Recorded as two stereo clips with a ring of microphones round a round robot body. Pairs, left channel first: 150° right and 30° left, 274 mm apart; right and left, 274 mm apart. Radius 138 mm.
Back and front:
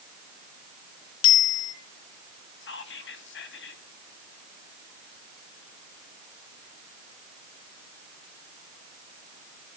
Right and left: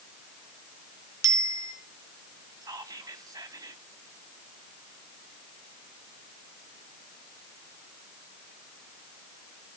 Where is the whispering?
165° left, 2.5 m.